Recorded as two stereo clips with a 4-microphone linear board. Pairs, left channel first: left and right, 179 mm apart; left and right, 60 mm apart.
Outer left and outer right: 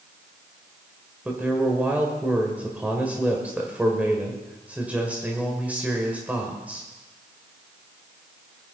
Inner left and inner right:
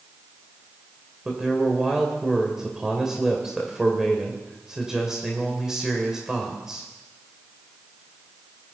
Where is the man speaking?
10° right (ahead or behind), 1.9 m.